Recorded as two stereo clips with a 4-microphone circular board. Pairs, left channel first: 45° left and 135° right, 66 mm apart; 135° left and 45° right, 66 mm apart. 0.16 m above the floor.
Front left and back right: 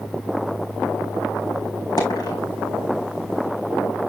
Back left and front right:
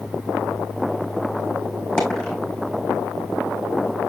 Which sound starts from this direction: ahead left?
A dropped coin, at 2.0 s.